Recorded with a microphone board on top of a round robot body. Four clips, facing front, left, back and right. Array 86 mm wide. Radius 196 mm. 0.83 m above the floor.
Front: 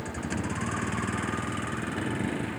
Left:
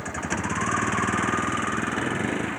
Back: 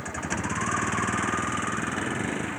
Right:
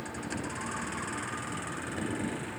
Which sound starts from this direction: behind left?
A vehicle, at 0.0 s.